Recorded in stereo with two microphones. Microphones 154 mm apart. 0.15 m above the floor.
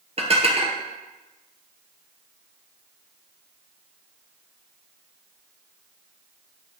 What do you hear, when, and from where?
0.2 s dishes clattering: 40° right (ahead or behind), 2.5 m